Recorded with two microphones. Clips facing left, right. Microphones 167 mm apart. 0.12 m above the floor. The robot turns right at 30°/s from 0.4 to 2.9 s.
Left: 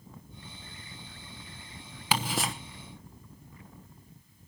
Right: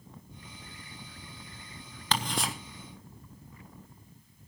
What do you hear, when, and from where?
2.1 s ticking: 10° left (ahead or behind), 1.0 m; by 2.5 s centre (ahead or behind), 1.0 m